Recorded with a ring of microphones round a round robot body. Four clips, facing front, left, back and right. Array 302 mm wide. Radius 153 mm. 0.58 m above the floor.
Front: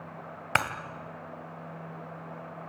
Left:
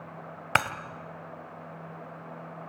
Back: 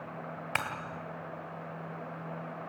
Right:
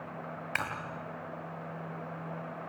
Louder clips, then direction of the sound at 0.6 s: Left 10 dB, front 7 dB; 60° left.